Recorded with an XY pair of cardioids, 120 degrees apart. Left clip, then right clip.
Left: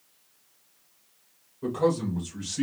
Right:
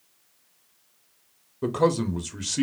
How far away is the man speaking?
About 0.7 m.